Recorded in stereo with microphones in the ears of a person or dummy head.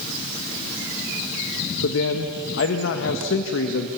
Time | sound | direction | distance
1.8 | a man speaking | 60° left (ahead or behind) | 1.4 m